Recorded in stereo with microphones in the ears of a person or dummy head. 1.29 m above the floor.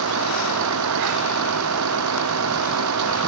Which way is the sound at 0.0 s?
85° right.